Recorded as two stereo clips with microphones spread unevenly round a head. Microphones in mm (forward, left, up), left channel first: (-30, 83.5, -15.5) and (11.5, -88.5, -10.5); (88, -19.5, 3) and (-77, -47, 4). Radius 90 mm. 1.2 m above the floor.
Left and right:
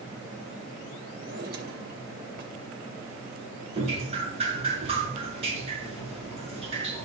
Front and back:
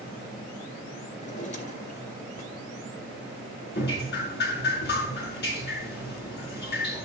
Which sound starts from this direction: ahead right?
A drawer, at 1.2 s.